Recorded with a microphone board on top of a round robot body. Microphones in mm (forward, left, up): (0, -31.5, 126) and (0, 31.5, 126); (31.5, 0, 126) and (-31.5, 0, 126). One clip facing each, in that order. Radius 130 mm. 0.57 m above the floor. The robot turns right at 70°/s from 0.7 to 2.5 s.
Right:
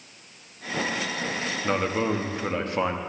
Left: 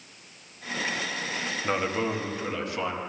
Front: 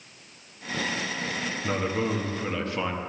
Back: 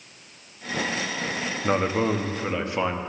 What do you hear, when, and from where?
1.6 s a man speaking: straight behind, 1.1 m; by 3.0 s 120° right, 1.1 m